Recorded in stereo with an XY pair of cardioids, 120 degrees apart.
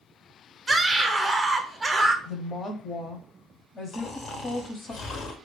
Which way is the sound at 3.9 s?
45° left.